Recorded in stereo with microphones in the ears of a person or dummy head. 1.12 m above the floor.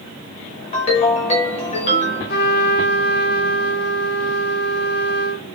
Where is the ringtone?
25° left (ahead or behind), 0.6 m.